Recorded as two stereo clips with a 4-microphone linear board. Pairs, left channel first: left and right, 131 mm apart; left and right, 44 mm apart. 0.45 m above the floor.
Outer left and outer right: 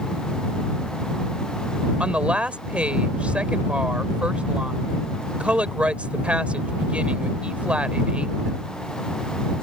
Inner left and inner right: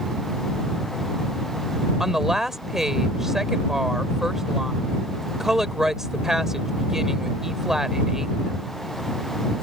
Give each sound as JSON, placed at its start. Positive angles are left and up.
{"t": 2.0, "sound": "a woman speaking", "side_deg": -10}